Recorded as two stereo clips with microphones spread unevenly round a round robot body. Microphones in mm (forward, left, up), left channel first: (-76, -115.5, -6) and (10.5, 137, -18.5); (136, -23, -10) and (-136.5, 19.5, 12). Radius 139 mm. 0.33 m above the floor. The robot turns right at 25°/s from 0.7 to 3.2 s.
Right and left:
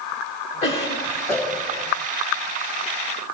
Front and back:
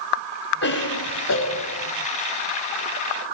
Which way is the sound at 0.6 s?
40° right.